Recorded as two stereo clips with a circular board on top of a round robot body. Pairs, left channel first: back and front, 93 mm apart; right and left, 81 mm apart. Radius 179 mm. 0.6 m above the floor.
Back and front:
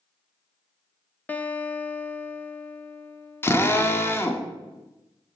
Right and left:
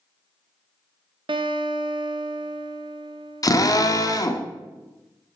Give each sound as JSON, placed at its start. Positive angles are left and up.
{"t": 1.3, "sound": "a guitar", "azimuth_deg": 105, "distance_m": 0.7}
{"t": 3.4, "sound": "a drill", "azimuth_deg": -120, "distance_m": 1.2}